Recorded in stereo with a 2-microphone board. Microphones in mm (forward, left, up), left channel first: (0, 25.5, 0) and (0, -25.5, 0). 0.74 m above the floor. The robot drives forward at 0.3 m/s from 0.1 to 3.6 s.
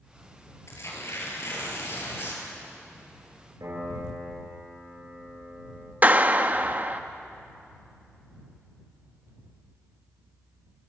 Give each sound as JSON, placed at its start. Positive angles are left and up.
{"t": 0.7, "sound": "tearing paper", "side_deg": 60, "distance_m": 4.5}
{"t": 3.6, "sound": "a piano", "side_deg": -85, "distance_m": 6.5}
{"t": 6.0, "sound": "a clap", "side_deg": -35, "distance_m": 0.8}